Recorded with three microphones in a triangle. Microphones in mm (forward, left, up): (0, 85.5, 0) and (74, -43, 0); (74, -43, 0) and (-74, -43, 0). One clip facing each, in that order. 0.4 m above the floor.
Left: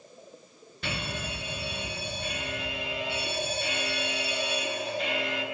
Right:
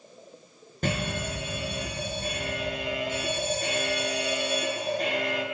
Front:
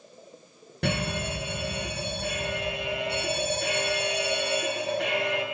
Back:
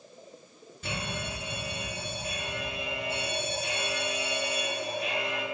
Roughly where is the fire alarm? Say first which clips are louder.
Right 6 dB, front 7 dB; ahead.